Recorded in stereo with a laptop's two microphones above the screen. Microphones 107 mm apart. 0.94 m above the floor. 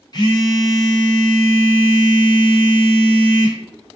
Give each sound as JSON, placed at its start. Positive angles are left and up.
{"t": 0.1, "sound": "a phone buzzing", "side_deg": 40, "distance_m": 0.8}